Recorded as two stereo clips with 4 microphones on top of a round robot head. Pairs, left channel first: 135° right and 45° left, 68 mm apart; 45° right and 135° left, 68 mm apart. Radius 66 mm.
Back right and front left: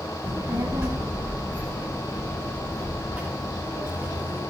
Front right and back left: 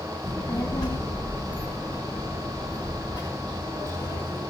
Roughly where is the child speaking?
Ahead.